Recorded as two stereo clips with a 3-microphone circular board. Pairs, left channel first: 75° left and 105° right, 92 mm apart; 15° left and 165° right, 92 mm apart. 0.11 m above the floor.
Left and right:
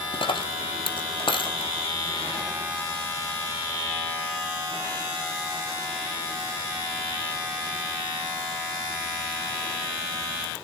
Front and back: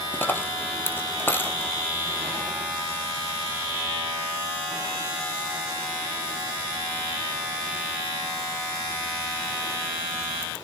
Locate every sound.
0.1 s a dropped coin: 80° left, 1.4 m